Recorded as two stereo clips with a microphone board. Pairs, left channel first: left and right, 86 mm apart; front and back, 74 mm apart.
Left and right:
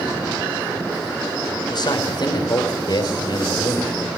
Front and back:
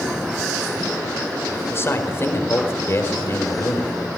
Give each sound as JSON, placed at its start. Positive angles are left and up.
{"t": 1.7, "sound": "a man speaking", "azimuth_deg": 55, "distance_m": 4.5}